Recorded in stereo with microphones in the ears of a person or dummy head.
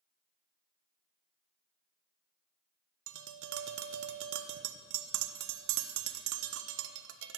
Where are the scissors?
No scissors in this recording.